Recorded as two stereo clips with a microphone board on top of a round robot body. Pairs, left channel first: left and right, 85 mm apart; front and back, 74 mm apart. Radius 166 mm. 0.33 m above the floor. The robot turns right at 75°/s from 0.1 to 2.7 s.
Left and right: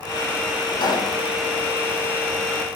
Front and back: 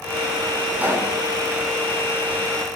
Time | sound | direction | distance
0.8 | a pop | 110° left | 7 m